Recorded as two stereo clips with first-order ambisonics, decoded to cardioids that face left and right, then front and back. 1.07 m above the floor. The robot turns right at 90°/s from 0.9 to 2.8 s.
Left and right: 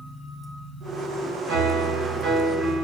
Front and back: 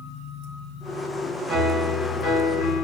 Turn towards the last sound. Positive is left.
turn(degrees=10)